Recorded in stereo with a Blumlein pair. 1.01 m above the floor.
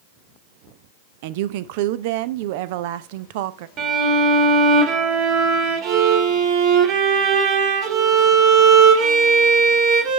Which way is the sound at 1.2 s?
50° right.